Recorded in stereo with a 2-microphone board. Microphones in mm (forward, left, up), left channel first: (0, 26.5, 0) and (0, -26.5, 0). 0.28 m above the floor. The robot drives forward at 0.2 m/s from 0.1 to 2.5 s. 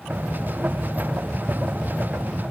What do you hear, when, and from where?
Only background noise.